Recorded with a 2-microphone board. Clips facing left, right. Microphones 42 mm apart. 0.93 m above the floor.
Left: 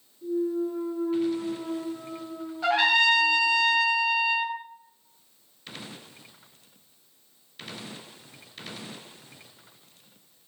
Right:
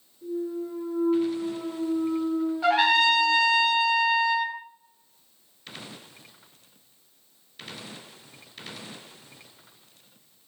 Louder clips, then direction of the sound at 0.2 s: Left 4 dB; 20° right (ahead or behind).